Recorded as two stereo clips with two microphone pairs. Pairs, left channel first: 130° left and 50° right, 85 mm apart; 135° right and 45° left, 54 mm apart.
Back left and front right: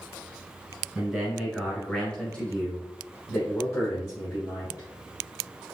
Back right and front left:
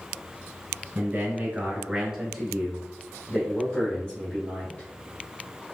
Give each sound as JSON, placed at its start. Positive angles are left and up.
{"t": 0.9, "sound": "a man speaking", "azimuth_deg": 25, "distance_m": 1.7}